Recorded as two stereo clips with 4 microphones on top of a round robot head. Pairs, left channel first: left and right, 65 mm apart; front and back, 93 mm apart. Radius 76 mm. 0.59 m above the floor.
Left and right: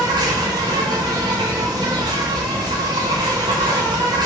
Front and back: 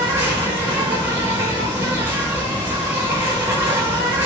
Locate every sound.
0.0 s an insect: 105° right, 1.0 m